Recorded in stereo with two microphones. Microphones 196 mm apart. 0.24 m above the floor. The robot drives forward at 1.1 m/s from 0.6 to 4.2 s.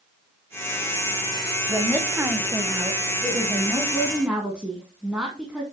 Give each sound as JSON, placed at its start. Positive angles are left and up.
{"t": 1.7, "sound": "a woman speaking", "side_deg": -5, "distance_m": 1.5}